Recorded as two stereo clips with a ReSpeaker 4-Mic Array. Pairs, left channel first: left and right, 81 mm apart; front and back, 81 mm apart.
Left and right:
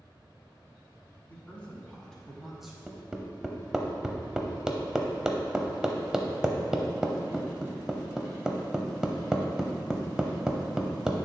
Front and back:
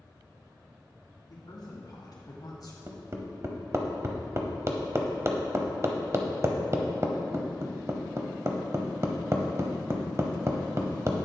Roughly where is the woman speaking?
Ahead.